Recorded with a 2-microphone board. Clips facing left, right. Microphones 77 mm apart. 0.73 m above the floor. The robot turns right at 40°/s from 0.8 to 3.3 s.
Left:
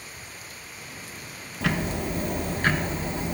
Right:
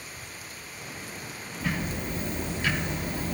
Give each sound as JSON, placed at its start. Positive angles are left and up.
{"t": 1.6, "sound": "ticking", "azimuth_deg": 90, "distance_m": 0.7}